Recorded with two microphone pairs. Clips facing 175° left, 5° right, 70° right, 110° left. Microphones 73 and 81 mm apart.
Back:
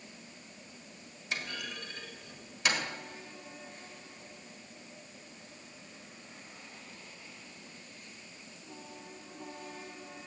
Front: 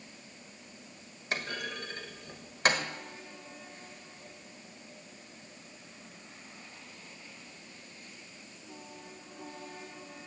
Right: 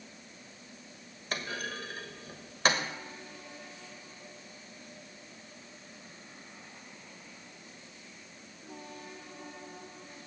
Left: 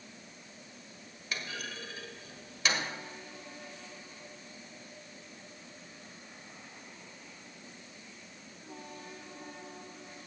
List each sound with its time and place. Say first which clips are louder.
1.3 s a clunk: front 3 dB, right 4 dB; 40° right, 1.3 m